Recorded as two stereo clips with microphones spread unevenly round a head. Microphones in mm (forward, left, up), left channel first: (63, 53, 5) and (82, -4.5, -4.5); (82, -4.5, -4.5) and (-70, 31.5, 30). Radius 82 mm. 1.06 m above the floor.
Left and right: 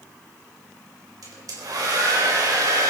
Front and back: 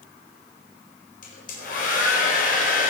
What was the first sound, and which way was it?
A hair dryer, 55° right.